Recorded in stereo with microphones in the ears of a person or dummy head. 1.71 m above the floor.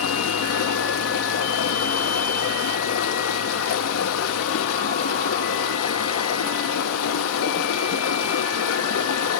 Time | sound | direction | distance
0.0 | running water | 80° left | 1.5 m